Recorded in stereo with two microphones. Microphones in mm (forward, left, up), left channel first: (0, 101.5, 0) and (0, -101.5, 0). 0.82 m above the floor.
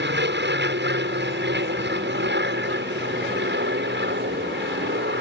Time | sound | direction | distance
0.0 | an aircraft | 60° right (ahead or behind) | ?